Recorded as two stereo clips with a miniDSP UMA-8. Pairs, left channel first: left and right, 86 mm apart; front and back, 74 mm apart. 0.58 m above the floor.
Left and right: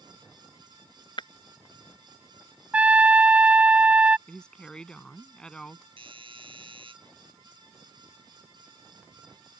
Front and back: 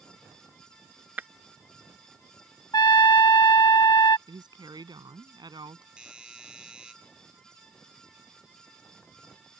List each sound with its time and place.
1.2 s breaking glass: 115° left
2.7 s a trumpet: 15° right
4.3 s a woman speaking: 170° left
6.0 s a doorbell: 100° right